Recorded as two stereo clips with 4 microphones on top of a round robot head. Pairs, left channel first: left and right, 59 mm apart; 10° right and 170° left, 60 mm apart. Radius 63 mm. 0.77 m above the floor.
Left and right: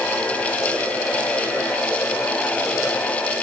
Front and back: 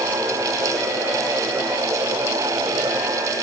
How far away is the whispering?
No whispering in this recording.